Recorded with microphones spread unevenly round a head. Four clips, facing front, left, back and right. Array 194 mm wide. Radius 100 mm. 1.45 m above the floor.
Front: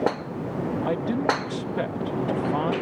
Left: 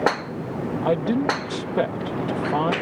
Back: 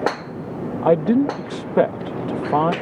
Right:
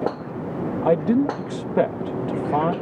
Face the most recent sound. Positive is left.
turn(degrees=-165)